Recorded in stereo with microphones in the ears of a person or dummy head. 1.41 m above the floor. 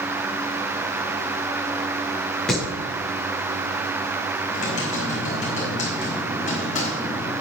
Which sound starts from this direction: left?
Typing on a keyboard, at 4.5 s.